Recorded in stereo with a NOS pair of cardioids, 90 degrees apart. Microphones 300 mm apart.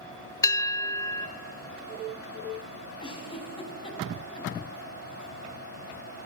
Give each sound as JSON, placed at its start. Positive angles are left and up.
{"t": 0.4, "sound": "a bell", "azimuth_deg": 10, "distance_m": 1.0}
{"t": 3.0, "sound": "a giggle", "azimuth_deg": 15, "distance_m": 4.5}